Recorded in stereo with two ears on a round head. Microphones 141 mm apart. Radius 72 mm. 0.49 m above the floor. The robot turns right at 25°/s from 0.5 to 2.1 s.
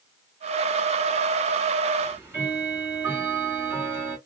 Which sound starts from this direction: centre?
Ticking, at 2.0 s.